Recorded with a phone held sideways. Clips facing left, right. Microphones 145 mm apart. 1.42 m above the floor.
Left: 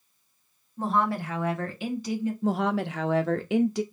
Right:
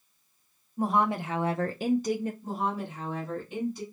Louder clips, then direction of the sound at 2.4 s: Left 6 dB; 85° left.